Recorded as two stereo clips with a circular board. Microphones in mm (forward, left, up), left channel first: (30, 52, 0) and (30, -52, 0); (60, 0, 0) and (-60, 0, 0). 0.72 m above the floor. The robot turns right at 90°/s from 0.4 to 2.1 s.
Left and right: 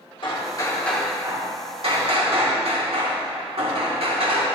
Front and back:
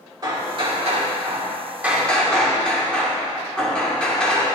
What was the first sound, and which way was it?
Hammering, 125° left.